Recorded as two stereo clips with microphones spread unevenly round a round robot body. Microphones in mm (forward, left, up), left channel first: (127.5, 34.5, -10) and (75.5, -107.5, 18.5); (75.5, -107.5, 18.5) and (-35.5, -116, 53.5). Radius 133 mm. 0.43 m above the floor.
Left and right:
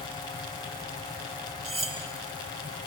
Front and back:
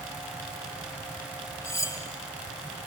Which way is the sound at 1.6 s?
55° right.